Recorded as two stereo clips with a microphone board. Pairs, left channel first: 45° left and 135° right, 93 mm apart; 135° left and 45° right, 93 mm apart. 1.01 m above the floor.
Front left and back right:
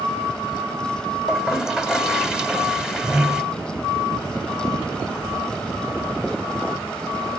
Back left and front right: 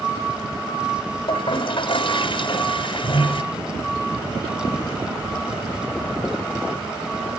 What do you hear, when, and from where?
1.3 s a toilet flushing: 140° left, 1.8 m